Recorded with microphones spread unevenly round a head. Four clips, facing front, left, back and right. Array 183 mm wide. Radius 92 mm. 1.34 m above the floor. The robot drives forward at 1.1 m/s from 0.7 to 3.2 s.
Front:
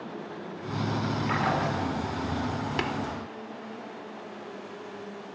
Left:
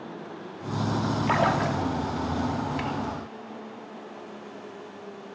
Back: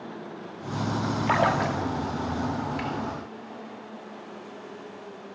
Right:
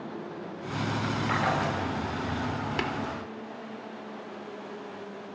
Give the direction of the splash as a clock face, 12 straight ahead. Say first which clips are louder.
Left 4 dB, back 5 dB; 7 o'clock.